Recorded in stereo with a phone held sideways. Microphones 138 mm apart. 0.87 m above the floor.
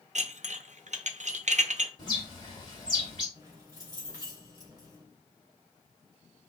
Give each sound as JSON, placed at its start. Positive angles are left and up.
{"t": 0.1, "sound": "dishes clattering", "side_deg": -65, "distance_m": 0.6}
{"t": 2.0, "sound": "a bird", "side_deg": 35, "distance_m": 2.0}
{"t": 3.4, "sound": "keys jangling", "side_deg": -30, "distance_m": 2.5}